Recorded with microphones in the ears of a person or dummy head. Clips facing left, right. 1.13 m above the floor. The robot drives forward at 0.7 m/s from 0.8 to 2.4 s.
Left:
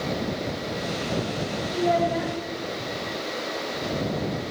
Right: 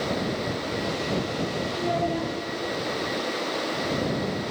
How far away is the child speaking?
About 1.4 m.